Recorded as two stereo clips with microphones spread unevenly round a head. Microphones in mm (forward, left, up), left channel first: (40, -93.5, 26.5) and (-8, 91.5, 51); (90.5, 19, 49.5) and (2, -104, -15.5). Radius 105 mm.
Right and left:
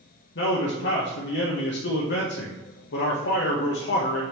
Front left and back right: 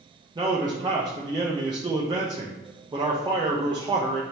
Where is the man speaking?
80° right, 1.0 m.